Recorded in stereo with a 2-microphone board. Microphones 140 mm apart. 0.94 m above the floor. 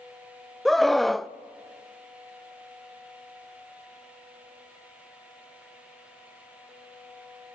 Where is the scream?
Centre (ahead or behind), 0.5 m.